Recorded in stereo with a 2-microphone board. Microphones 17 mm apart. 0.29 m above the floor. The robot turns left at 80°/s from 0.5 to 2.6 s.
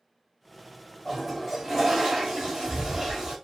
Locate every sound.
1.1 s a toilet flushing: 5° left, 1.4 m; by 3.4 s 115° right, 1.4 m